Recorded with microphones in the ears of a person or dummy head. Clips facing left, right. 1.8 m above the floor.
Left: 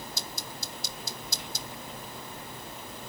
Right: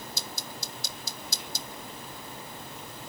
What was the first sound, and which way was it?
Only background noise.